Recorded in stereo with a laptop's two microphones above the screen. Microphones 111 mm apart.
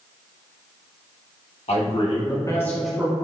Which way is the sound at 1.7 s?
65° left (ahead or behind).